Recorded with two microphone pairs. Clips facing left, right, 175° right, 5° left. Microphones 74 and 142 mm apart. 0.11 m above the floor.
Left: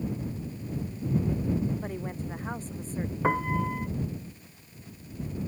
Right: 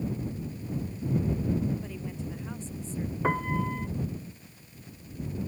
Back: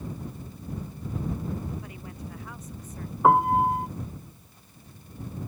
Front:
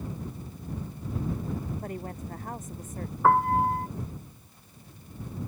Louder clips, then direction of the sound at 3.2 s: Left 2 dB, back 2 dB; 165° left.